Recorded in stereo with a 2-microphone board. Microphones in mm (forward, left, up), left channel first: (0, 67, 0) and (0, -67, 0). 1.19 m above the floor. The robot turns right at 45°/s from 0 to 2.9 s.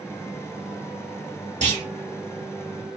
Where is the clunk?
65° right (ahead or behind), 2 m; by 1.9 s 55° right (ahead or behind), 2 m.